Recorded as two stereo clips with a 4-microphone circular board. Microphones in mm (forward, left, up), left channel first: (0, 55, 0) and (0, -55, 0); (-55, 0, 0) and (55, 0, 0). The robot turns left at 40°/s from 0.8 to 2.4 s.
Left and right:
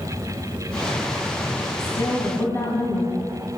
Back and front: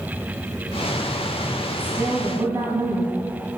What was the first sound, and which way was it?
A woman speaking, 60° left.